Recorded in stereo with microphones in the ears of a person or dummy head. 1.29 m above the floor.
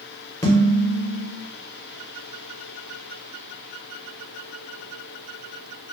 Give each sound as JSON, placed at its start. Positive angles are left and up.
{"t": 0.4, "sound": "dishes clattering", "side_deg": 20, "distance_m": 0.7}